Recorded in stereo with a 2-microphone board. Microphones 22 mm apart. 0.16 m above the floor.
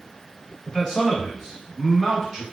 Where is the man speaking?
25° left (ahead or behind), 1.2 m; by 2.4 s 15° left (ahead or behind), 1.3 m.